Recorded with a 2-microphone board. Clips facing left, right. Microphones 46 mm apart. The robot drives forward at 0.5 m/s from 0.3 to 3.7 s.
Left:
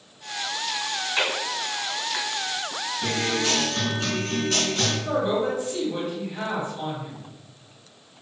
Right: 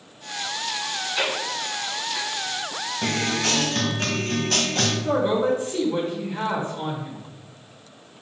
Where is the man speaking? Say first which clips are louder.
Right 4 dB; 40° right (ahead or behind), 1.3 m.